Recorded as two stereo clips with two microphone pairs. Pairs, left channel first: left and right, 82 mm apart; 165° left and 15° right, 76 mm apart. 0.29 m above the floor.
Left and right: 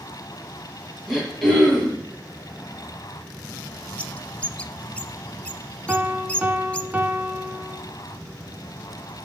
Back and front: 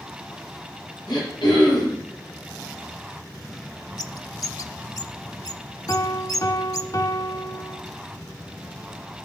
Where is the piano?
160° right, 0.9 m.